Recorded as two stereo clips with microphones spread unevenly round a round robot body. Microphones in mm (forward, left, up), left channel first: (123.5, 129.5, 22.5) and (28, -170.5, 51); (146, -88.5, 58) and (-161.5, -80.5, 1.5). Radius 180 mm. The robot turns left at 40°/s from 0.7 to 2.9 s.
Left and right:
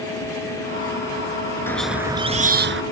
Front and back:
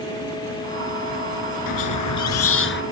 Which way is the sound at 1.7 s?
10° right.